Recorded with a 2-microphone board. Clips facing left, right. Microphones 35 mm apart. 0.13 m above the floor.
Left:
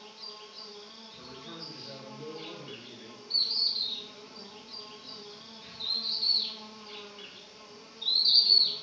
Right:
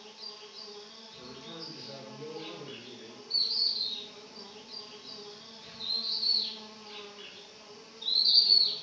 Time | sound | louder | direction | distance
0.0 | an insect | left 1 dB | 15° left (ahead or behind) | 1.1 m
1.2 | a man speaking | even | 25° left (ahead or behind) | 1.7 m
3.3 | a bird | left 1 dB | 30° left (ahead or behind) | 1.7 m